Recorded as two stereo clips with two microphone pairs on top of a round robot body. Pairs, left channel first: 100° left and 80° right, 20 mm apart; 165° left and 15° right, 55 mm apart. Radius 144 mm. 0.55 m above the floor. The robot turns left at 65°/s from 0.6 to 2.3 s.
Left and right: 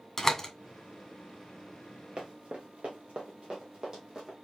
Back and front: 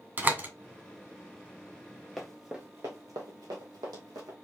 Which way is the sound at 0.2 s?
45° left.